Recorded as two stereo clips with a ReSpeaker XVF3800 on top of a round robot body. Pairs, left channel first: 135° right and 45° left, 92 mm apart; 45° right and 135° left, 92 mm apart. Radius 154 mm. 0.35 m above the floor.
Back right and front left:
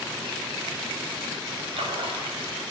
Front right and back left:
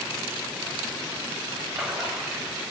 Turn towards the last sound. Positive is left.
turn(degrees=50)